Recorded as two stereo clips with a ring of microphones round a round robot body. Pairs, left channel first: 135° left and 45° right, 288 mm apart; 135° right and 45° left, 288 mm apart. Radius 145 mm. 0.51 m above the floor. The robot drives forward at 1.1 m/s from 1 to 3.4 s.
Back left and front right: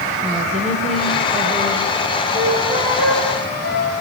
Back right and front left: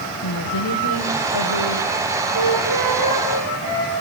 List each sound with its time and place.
0.2 s a woman speaking: 110° right, 3 m; by 2.2 s 135° right, 3.5 m
2.3 s a flute: 10° left, 10 m; by 3.9 s 15° left, 9 m